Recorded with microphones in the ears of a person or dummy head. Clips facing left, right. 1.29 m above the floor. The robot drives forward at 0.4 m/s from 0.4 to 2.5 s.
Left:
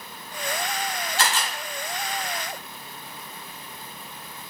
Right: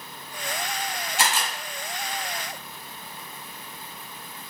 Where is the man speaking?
No man speaking in this recording.